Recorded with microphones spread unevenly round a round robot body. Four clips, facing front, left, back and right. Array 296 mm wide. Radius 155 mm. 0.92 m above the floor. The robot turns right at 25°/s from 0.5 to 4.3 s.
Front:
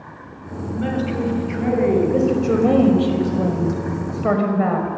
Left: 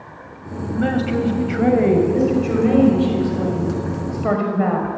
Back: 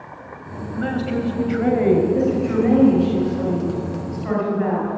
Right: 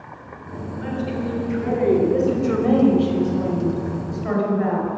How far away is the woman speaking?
About 6 m.